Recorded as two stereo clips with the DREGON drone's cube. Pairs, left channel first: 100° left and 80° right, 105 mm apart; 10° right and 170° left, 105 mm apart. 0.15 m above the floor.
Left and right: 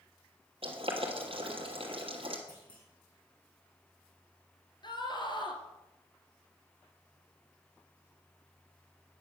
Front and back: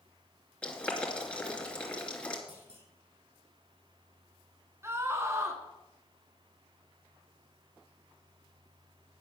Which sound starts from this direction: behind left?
A scream, at 4.8 s.